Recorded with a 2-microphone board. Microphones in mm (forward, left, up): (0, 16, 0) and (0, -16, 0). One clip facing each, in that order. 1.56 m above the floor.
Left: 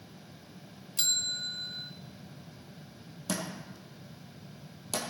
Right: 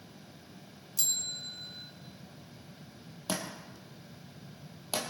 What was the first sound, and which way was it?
A bell, 40° left (ahead or behind).